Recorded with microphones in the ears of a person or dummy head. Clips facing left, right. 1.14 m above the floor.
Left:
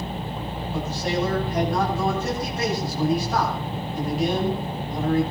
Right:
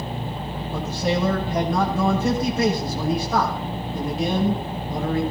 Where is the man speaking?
75° right (ahead or behind), 8.5 m.